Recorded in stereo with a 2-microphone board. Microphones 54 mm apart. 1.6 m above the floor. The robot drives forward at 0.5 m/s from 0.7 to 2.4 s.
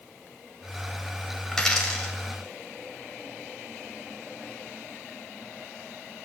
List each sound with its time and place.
1.5 s a dropped coin: 10° left (ahead or behind), 4.5 m